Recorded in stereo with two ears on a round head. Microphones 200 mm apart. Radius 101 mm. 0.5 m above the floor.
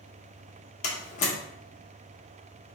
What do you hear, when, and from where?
0.8 s a door slam: 30° left (ahead or behind), 0.7 m